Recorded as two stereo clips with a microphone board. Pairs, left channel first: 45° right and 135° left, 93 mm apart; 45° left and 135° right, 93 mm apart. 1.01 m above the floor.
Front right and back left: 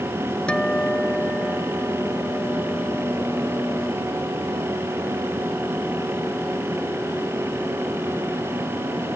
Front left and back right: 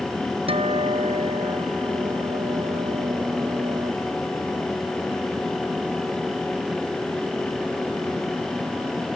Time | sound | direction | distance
0.5 | a guitar | 125° right | ?